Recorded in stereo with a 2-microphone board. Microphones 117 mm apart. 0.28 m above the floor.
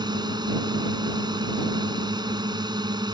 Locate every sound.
0.0 s a drone: 35° right (ahead or behind)